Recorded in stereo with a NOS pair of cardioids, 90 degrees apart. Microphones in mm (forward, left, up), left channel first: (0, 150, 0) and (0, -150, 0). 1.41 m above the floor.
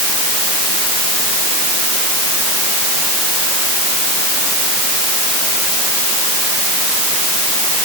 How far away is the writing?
No writing in this recording.